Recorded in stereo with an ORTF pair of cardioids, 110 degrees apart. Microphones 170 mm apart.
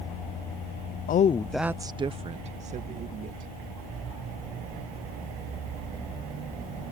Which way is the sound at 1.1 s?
55° left.